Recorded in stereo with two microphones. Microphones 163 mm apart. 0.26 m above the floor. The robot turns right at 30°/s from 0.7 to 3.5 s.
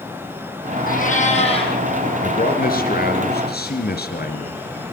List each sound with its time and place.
0.9 s a cat meowing: 60° left (ahead or behind), 4.5 m; by 1.8 s 30° left (ahead or behind), 4.5 m
2.2 s a man speaking: 55° left, 4 m; by 4.6 s 95° left, 4 m